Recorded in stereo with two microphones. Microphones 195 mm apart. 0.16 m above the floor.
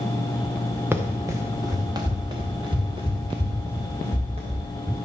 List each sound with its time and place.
0.9 s running footsteps: 10° right (ahead or behind), 1.3 m; by 4.7 s 30° right (ahead or behind), 3 m